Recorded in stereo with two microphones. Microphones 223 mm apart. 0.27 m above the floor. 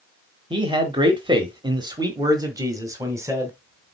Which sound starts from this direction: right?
A man speaking, at 0.5 s.